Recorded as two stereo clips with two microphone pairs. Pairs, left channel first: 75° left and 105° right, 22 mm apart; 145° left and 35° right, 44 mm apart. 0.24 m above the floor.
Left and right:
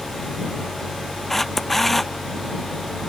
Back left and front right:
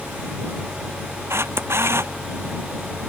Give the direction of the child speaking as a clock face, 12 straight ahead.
No child speaking in this recording.